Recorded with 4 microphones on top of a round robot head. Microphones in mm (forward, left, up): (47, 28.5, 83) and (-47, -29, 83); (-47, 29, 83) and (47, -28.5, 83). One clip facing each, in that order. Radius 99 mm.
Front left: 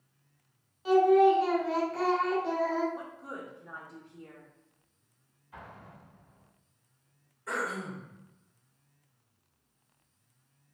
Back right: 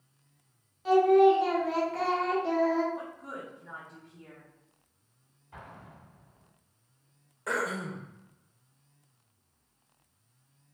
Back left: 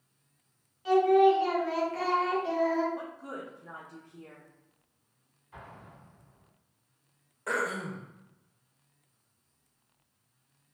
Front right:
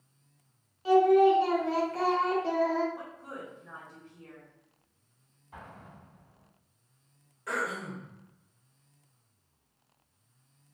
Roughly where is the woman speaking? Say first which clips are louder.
Back right 1 dB, back left 3 dB; behind left.